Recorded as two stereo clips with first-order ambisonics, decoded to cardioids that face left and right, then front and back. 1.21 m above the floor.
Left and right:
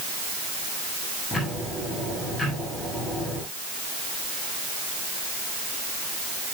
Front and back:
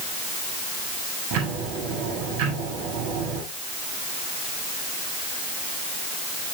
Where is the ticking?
170° left, 7 m.